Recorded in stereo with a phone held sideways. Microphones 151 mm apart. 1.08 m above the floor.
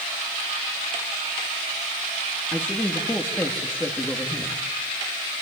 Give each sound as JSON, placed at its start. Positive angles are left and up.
{"t": 2.5, "sound": "a man speaking", "side_deg": 15, "distance_m": 2.5}